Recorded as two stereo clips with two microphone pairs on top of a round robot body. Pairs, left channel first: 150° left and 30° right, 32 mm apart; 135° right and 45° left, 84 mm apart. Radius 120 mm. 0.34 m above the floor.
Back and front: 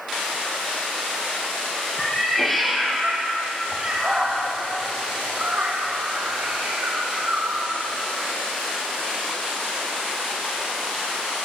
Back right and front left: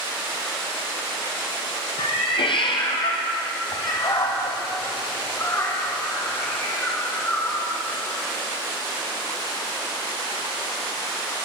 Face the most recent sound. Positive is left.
turn(degrees=-60)